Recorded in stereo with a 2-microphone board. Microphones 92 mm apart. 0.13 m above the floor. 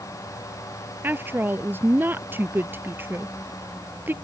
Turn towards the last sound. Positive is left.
turn(degrees=-25)  # may be behind; listen again after turning